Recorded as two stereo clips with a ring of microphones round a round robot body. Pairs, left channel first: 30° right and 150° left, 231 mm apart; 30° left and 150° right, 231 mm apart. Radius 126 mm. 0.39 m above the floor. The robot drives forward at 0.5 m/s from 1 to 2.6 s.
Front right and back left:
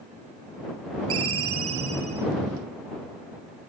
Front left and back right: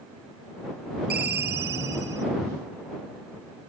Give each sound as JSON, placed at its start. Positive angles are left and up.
{"t": 1.1, "sound": "a ringtone", "azimuth_deg": 165, "distance_m": 1.4}